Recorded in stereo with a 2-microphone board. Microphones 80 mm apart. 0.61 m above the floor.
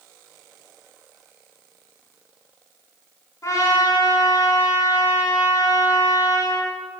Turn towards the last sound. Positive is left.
turn(degrees=45)  # may be behind; listen again after turning